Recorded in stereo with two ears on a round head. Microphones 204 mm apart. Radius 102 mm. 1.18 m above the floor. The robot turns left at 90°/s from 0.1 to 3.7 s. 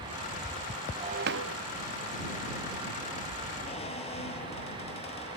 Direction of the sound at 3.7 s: 30° left (ahead or behind).